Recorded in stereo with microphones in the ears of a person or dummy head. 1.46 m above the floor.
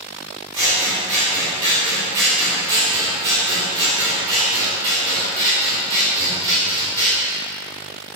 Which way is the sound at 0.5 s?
20° right (ahead or behind).